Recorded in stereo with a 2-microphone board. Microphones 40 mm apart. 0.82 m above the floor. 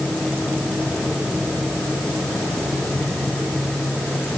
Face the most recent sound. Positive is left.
No sound to turn to.